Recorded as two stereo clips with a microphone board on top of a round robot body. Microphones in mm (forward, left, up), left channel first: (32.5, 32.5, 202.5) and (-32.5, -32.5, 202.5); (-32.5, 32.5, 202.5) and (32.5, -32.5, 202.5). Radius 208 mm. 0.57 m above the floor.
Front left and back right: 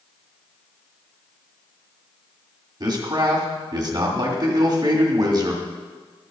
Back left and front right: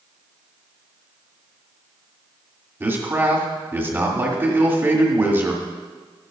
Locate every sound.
2.8 s a man speaking: 110° right, 2 m